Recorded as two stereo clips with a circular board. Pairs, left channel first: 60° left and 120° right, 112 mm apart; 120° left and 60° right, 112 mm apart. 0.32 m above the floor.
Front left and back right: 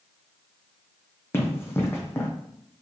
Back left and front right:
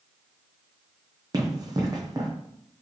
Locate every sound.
1.3 s running footsteps: 5° right, 0.9 m